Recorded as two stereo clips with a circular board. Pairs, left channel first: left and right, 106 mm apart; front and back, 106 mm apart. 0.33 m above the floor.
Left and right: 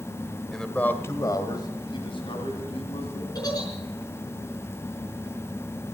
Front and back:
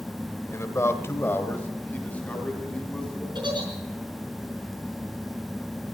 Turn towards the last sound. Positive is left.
turn(degrees=140)